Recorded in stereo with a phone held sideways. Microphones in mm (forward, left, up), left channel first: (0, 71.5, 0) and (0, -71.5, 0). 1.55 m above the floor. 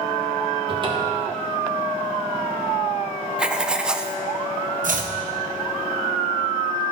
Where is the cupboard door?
35° right (ahead or behind), 1.6 m.